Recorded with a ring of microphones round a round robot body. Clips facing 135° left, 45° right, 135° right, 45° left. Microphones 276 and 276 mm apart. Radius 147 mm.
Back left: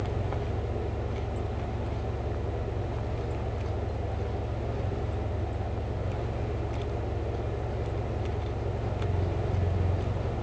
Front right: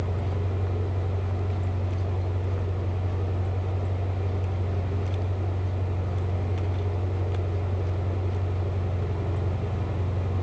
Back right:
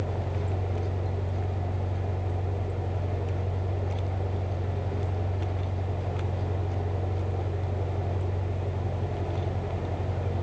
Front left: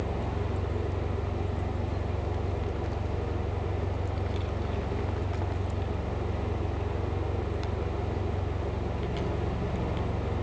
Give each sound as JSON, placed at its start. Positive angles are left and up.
{"t": 0.0, "sound": "an engine running", "azimuth_deg": 20, "distance_m": 8.0}